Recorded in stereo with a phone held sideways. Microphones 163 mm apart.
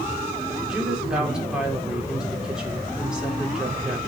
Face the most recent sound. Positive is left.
turn(degrees=-5)  # may be behind; listen again after turning